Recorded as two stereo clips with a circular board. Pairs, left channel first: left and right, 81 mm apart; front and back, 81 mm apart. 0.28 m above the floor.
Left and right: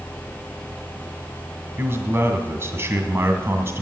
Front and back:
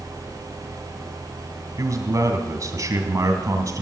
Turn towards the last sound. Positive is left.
turn(degrees=-145)